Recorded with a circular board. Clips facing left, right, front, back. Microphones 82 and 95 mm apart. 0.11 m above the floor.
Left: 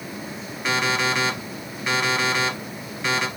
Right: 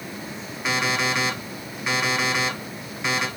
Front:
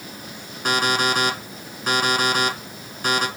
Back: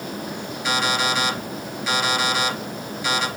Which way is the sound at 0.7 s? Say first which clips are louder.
Left 1 dB, front 2 dB; 5° right.